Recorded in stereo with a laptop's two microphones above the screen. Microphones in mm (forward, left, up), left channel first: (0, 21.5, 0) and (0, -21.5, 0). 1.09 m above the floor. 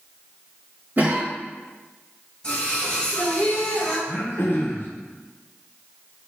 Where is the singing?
20° left (ahead or behind), 1.5 m.